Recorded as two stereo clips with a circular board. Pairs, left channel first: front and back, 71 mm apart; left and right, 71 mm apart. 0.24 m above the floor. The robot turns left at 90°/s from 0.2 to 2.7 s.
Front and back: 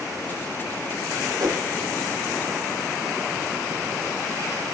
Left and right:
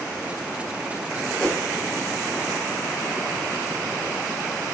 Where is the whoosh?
165° left, 0.9 m; by 1.7 s 140° left, 0.9 m.